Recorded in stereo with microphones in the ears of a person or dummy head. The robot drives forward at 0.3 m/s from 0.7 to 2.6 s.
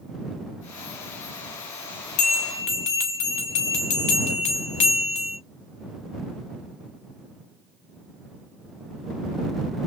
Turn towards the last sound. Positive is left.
turn(degrees=35)  # may be behind; listen again after turning